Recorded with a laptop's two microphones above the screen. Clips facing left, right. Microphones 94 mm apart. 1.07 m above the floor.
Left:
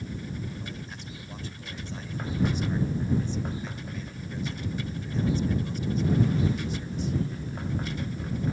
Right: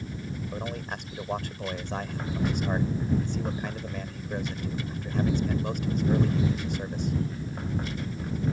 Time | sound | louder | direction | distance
0.5 | a man speaking | right 5 dB | 65° right (ahead or behind) | ?